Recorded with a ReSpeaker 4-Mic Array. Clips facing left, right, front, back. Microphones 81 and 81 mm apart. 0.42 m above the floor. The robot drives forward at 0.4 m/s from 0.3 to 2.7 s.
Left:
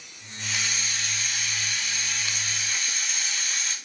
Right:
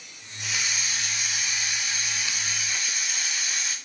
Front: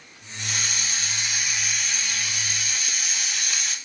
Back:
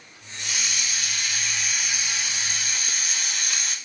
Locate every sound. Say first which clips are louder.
0.4 s a hiss: even, front 1 dB; 15° right, 0.7 m; by 3.8 s 160° right, 0.6 m